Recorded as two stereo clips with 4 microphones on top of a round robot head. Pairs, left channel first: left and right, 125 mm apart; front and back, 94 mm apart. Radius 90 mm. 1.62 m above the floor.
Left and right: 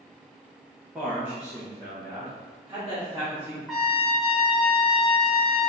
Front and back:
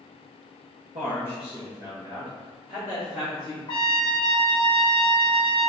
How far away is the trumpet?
About 0.7 m.